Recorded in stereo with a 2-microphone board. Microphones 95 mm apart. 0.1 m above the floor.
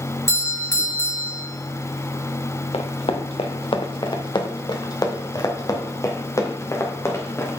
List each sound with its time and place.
0.3 s a doorbell: 30° left (ahead or behind), 1.8 m
2.7 s running footsteps: 85° left, 1.3 m; by 7.6 s 25° left (ahead or behind), 3 m